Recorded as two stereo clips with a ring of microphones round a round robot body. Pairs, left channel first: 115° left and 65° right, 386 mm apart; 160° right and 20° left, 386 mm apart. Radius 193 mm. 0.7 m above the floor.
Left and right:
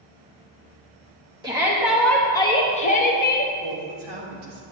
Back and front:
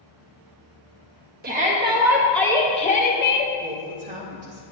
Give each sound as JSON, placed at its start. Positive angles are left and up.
{"t": 1.4, "sound": "a shout", "azimuth_deg": 0, "distance_m": 1.1}
{"t": 3.6, "sound": "a woman speaking", "azimuth_deg": -45, "distance_m": 2.5}